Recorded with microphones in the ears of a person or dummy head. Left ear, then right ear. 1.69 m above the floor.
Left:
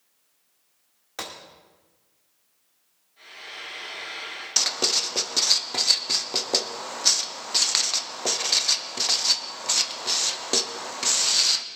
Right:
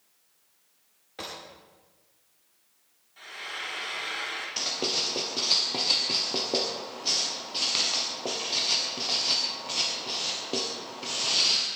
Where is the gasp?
I don't hear a gasp.